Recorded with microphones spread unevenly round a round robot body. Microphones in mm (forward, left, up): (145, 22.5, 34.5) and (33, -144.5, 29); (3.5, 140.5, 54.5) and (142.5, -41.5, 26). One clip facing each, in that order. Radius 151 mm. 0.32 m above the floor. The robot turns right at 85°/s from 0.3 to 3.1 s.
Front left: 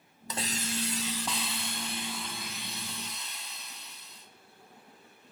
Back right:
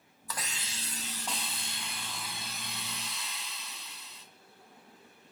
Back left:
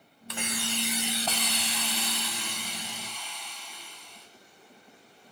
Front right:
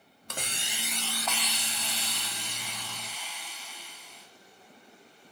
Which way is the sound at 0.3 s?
15° right.